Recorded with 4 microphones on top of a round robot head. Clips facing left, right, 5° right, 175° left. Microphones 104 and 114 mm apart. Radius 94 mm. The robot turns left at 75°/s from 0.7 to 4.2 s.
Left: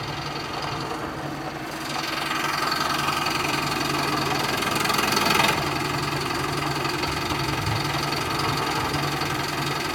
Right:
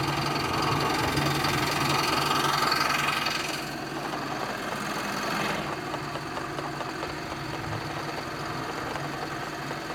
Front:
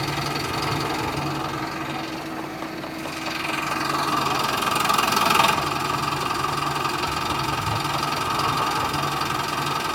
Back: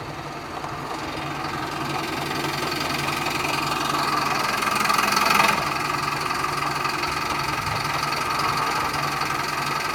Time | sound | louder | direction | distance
0.0 | an engine running | right 3 dB, front 6 dB | 35° right | 4.5 m